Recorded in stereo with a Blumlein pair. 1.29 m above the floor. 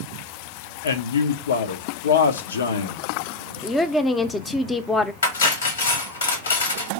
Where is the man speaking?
65° left, 0.8 m.